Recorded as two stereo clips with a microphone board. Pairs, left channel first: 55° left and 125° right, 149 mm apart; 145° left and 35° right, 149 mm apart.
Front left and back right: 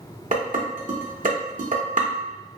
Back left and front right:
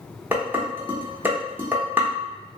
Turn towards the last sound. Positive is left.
turn(degrees=-110)